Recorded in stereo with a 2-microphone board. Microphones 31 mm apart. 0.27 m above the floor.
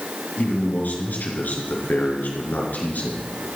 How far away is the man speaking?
About 4.5 m.